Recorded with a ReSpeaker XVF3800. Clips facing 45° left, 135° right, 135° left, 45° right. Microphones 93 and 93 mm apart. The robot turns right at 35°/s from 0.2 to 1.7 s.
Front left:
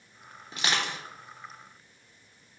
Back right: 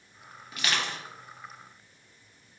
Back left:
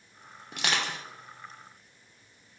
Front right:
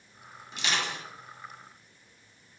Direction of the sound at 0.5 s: 105° left.